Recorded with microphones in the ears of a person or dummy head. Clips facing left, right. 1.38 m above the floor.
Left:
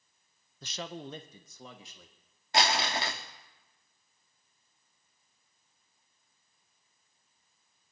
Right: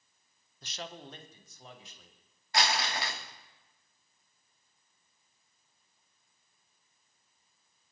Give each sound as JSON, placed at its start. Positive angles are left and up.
{"t": 0.6, "sound": "a man speaking", "side_deg": 65, "distance_m": 0.6}
{"t": 2.5, "sound": "crumpling", "side_deg": 20, "distance_m": 1.0}